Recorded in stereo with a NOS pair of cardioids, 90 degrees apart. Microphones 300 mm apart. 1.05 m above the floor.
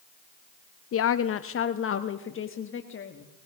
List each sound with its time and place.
0.9 s a woman speaking: 50° left, 0.7 m; by 3.3 s 40° left, 1.9 m